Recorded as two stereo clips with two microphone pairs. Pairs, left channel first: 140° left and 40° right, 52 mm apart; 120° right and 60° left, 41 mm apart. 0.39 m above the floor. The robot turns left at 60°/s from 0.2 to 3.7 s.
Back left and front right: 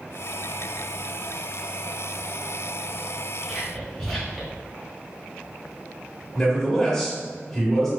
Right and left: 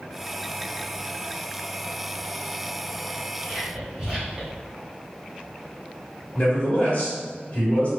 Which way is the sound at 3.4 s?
70° left.